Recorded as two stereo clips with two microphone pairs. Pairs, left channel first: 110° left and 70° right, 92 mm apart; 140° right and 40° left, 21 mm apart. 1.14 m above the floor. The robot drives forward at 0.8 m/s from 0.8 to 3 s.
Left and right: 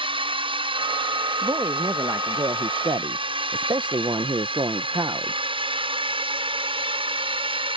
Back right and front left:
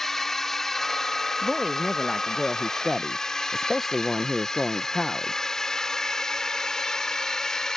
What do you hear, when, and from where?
0.0 s a drone: 70° right; by 7.8 s 80° right
1.4 s a woman speaking: 25° right; by 5.3 s 65° right